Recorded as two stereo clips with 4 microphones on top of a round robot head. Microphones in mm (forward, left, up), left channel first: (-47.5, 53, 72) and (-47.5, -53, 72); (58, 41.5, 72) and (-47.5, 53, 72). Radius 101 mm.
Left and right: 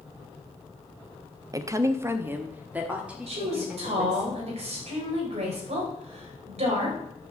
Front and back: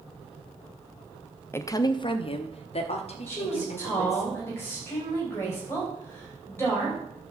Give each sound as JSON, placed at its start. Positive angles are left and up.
{"t": 1.5, "sound": "a woman speaking", "azimuth_deg": -60, "distance_m": 0.6}
{"t": 3.3, "sound": "a woman speaking", "azimuth_deg": -75, "distance_m": 3.5}